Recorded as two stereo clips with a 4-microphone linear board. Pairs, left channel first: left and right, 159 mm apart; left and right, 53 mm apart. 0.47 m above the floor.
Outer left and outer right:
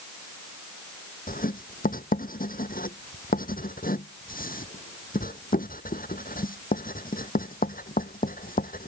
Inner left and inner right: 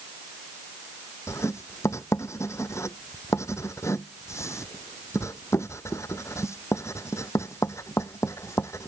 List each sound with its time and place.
1.3 s writing: 65° left (ahead or behind)